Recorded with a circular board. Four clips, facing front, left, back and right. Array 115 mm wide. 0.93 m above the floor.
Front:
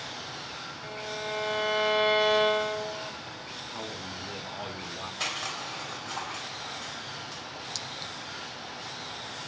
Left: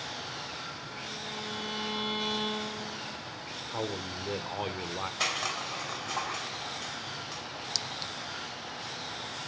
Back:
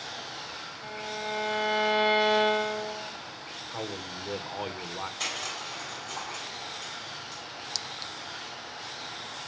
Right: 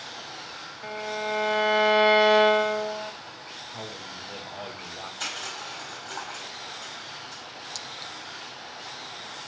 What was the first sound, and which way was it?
A violin, 95° right.